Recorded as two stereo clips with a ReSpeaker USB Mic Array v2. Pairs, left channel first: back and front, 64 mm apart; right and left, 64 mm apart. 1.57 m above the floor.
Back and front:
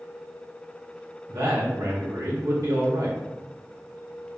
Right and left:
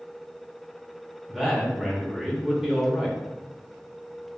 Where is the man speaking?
10° left, 0.5 m.